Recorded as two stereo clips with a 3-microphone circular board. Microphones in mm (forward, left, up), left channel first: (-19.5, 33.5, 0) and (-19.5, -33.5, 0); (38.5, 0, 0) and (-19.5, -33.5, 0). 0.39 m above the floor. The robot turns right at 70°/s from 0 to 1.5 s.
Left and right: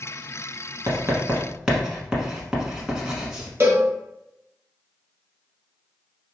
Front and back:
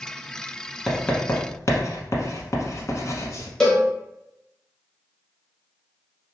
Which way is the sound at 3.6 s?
50° right.